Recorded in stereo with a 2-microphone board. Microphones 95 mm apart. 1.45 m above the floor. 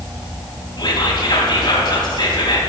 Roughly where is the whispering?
Left.